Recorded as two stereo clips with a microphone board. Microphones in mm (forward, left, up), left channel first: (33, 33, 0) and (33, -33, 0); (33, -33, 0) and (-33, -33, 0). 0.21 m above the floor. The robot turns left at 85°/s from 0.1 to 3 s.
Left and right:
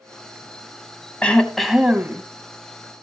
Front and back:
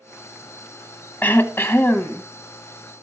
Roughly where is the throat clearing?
Ahead left.